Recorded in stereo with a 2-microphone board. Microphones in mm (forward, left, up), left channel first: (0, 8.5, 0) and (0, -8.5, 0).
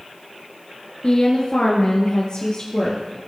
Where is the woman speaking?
45° left (ahead or behind), 2 m.